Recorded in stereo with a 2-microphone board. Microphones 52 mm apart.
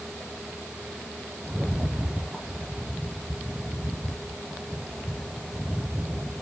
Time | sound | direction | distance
1.4 | a rattle | 15° right (ahead or behind) | 2 m